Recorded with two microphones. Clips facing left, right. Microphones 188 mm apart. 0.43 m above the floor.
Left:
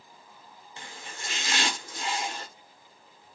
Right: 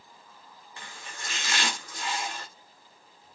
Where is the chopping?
25° left (ahead or behind), 1.1 m.